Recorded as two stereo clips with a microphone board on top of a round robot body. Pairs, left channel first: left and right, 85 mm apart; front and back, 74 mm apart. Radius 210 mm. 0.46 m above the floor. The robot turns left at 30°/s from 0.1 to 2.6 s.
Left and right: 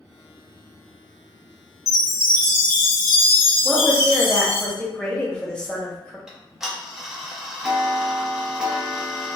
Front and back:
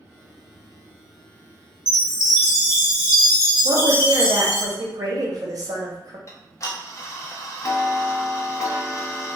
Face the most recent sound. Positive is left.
turn(degrees=-10)